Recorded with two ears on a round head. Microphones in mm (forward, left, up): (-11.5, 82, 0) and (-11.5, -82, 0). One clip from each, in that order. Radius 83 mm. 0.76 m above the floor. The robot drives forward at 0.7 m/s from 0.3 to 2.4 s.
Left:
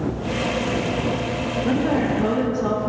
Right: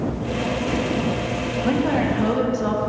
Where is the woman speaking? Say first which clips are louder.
Right 1 dB; 30° right (ahead or behind), 1.3 m; by 2.9 s 35° right (ahead or behind), 1.1 m.